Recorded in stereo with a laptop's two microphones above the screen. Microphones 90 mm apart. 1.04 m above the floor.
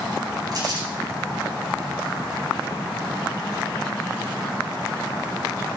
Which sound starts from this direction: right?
Crumpling, at 0.5 s.